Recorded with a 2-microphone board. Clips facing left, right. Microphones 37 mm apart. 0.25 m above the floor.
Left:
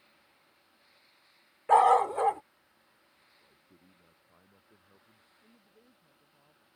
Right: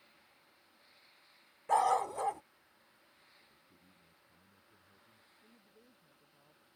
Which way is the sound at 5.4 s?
15° left (ahead or behind).